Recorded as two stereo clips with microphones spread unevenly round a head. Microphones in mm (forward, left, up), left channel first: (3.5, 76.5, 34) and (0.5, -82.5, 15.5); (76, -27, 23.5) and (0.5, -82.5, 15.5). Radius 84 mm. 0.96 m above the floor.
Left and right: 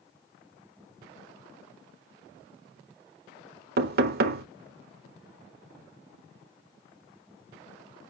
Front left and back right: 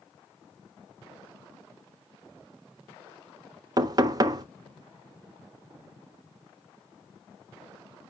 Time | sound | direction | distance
3.8 | knocking | 100° right | 1.1 m